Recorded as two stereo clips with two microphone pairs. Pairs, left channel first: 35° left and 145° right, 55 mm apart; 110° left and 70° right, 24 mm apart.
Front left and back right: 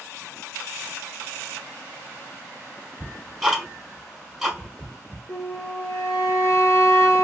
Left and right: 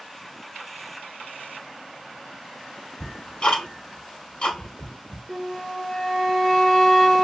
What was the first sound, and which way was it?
Ticking, 140° left.